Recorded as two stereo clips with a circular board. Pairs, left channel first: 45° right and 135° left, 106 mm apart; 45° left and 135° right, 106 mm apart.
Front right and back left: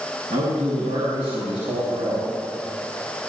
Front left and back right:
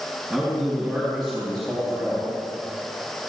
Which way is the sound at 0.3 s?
135° left.